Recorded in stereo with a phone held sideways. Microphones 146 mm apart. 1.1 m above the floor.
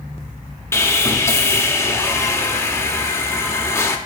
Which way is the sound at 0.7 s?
20° left (ahead or behind).